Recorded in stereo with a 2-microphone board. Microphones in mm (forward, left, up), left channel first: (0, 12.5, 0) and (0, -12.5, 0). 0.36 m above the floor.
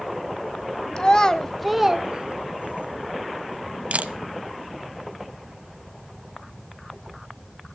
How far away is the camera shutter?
About 0.9 m.